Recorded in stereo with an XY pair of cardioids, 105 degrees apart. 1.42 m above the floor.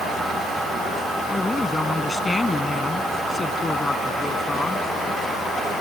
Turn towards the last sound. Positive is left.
turn(degrees=20)